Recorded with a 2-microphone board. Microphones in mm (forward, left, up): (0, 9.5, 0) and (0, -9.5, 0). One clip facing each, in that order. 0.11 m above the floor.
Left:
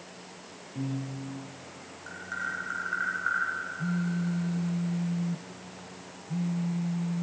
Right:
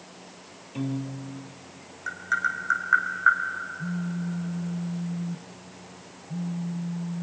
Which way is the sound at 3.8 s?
45° left (ahead or behind).